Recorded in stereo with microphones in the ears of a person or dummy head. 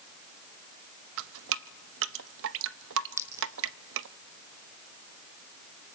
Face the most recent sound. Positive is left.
turn(degrees=-15)  # may be behind; listen again after turning